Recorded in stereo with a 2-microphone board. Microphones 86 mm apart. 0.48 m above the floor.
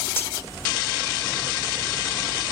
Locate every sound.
0.2 s cutlery clinking: 25° left (ahead or behind)